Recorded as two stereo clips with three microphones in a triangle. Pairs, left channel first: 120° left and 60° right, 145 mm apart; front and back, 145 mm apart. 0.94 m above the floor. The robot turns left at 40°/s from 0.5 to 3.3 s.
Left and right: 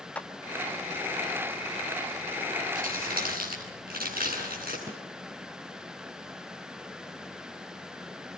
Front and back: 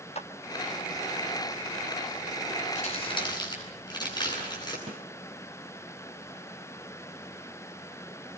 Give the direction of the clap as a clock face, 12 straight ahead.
11 o'clock.